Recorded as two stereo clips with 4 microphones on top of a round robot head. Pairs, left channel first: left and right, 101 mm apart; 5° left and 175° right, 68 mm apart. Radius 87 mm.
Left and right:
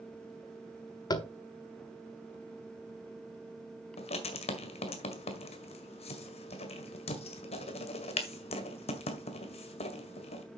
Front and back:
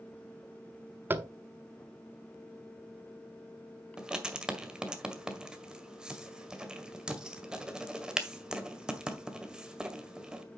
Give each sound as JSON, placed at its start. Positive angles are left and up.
{"t": 1.1, "sound": "tapping", "azimuth_deg": 130, "distance_m": 1.1}
{"t": 4.0, "sound": "writing", "azimuth_deg": 105, "distance_m": 1.8}